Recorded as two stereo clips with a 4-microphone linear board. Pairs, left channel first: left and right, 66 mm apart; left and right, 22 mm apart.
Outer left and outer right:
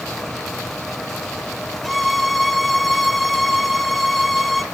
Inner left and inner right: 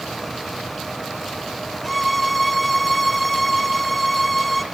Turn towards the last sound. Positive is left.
turn(degrees=0)  # may be behind; listen again after turning